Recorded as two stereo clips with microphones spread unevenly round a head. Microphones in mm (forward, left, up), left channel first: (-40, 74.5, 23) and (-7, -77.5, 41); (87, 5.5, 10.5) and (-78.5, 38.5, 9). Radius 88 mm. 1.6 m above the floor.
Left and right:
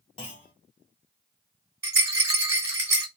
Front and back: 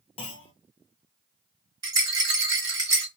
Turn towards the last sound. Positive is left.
turn(degrees=-135)